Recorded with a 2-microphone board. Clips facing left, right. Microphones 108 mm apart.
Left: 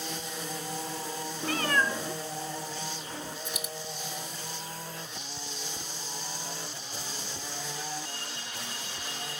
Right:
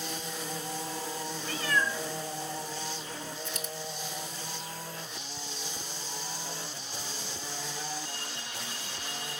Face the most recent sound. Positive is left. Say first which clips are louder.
# even
turn(degrees=15)  # may be behind; listen again after turning